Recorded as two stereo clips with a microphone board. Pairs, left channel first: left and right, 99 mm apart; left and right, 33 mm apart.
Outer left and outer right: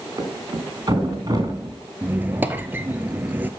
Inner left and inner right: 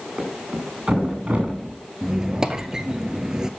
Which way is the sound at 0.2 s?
35° right (ahead or behind).